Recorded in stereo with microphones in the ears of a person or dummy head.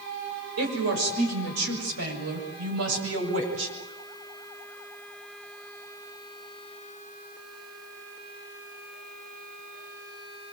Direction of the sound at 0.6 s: 65° right (ahead or behind).